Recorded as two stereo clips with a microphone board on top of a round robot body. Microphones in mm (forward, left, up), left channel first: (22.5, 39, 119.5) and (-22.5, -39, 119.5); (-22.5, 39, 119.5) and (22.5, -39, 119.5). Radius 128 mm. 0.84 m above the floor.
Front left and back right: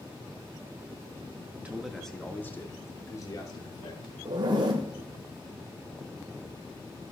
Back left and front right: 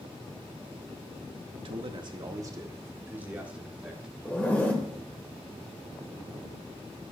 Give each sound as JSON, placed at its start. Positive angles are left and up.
{"t": 1.6, "sound": "a man speaking", "azimuth_deg": -45, "distance_m": 1.6}
{"t": 4.2, "sound": "a zipper", "azimuth_deg": -165, "distance_m": 1.2}